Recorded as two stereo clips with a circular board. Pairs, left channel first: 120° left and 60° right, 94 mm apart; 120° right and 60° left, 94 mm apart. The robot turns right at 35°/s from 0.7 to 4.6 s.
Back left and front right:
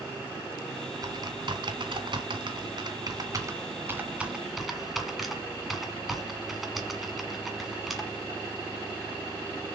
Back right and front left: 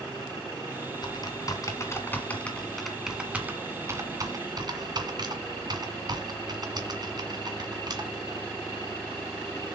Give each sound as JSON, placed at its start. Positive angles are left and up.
{"t": 1.0, "sound": "typing on a keyboard", "azimuth_deg": -95, "distance_m": 1.8}